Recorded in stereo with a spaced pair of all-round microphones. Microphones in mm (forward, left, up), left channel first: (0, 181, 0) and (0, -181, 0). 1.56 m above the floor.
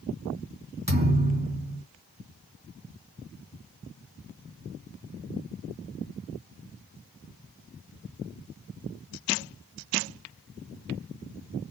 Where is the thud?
15° right (ahead or behind), 3 m.